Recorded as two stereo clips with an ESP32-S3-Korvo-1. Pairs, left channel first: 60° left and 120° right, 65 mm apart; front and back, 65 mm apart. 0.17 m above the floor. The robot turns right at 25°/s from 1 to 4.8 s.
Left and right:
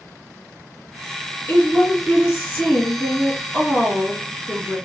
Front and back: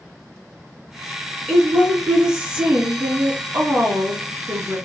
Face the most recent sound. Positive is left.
turn(degrees=170)